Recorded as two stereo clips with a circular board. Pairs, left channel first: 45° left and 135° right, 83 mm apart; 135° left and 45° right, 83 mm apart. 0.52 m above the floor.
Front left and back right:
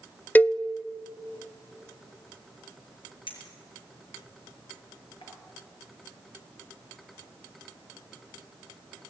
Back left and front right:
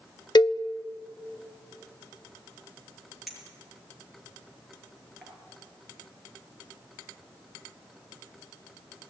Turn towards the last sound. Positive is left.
turn(degrees=45)